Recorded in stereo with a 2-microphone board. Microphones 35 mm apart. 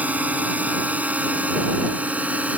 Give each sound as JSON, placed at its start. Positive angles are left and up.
{"t": 0.0, "sound": "a drone", "side_deg": -50}